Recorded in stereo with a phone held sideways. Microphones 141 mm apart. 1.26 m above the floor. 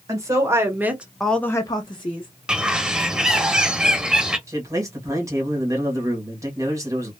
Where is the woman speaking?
20° right (ahead or behind), 1.3 m; by 2.3 s 35° left (ahead or behind), 0.8 m.